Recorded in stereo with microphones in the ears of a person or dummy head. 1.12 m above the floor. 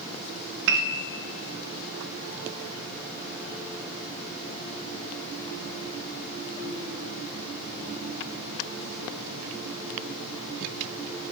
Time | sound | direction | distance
0.7 | a piano | 65° right (ahead or behind) | 0.9 m